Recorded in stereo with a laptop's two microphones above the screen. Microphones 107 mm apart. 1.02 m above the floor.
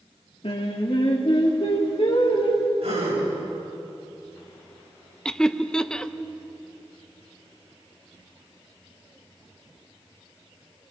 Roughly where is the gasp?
Right.